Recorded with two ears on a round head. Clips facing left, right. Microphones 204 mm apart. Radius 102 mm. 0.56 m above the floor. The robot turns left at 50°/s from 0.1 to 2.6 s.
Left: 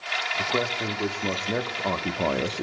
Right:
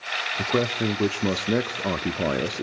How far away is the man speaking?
About 0.7 m.